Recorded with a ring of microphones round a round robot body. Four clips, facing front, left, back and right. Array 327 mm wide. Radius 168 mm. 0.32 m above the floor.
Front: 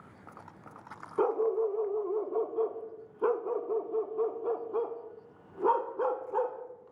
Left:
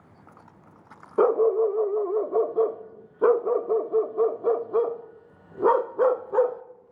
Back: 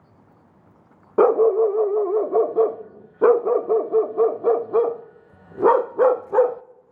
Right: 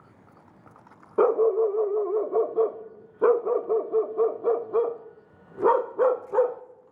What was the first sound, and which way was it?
A dog barking, straight behind.